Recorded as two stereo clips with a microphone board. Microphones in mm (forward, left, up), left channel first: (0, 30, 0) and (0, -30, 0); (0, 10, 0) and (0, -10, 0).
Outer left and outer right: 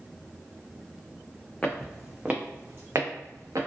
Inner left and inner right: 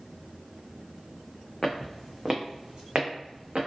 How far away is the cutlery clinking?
I don't hear cutlery clinking.